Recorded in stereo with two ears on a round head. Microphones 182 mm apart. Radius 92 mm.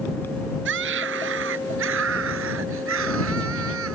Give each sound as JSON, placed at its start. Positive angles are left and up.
{"t": 0.7, "sound": "a scream", "side_deg": -70}